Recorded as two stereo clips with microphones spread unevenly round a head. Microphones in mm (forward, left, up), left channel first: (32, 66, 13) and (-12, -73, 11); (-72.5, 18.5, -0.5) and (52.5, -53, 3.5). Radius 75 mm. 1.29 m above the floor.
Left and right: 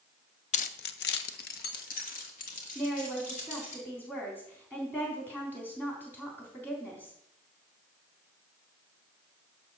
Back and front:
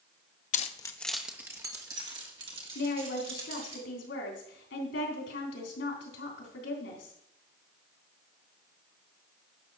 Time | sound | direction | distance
0.5 | keys jangling | 115° left | 0.6 m
2.8 | a woman speaking | 150° left | 3.5 m